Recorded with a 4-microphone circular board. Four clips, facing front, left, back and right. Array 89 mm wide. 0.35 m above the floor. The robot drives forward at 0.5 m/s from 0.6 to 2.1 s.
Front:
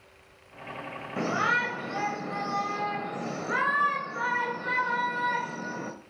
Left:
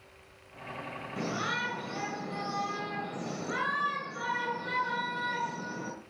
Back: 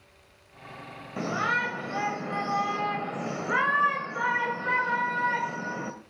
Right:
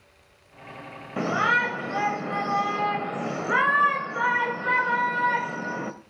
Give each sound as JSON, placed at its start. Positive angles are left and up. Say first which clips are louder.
{"t": 1.2, "sound": "a shout", "louder": "right 11 dB, front 1 dB", "azimuth_deg": -75, "distance_m": 1.6}